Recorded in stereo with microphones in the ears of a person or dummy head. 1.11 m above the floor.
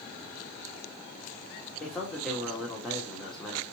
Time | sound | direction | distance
1.8 | a man speaking | 5° left (ahead or behind) | 1.5 m